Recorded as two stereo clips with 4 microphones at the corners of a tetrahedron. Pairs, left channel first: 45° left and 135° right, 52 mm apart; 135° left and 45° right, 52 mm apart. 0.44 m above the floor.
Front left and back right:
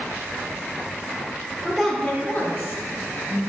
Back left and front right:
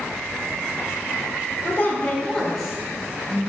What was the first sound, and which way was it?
A woman speaking, 140° left.